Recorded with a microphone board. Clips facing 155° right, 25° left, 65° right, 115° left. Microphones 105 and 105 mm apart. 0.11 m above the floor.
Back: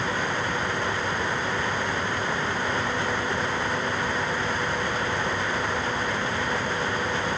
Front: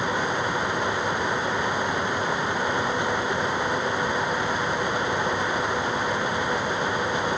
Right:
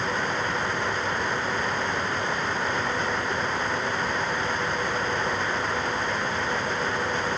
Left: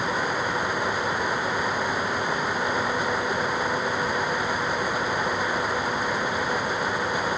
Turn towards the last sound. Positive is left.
No sound to turn to.